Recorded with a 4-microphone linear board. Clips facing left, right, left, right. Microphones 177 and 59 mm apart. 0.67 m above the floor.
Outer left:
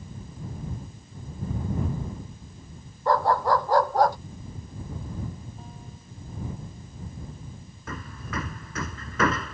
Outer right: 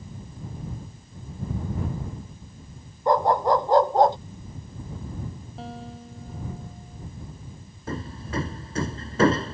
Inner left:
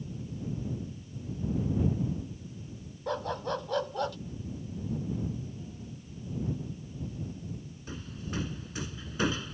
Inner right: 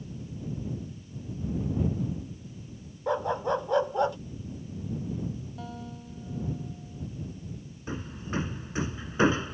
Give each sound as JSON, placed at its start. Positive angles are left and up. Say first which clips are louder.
{"t": 3.1, "sound": "a dog barking", "louder": "outer right 2 dB, inner right 5 dB", "side_deg": -20}
{"t": 5.6, "sound": "a guitar", "louder": "outer right 8 dB, inner right 5 dB", "side_deg": -80}
{"t": 7.9, "sound": "hammering", "louder": "outer right 5 dB, inner right 5 dB", "side_deg": -30}